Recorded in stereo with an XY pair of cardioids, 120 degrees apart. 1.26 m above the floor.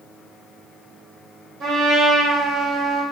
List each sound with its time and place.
1.6 s a trumpet: 65° right, 1.9 m